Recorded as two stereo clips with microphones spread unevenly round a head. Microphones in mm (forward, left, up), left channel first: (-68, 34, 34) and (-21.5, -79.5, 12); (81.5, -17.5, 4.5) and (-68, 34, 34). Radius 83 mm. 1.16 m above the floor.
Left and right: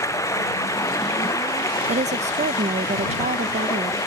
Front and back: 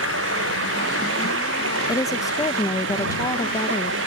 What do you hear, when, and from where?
0.0 s running water: 175° left
1.9 s a woman speaking: 85° right